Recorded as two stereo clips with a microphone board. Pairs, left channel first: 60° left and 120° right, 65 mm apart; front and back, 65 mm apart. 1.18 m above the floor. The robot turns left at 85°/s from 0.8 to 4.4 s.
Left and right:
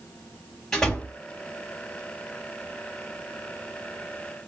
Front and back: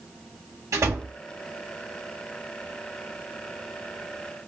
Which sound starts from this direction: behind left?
A door slam, at 0.7 s.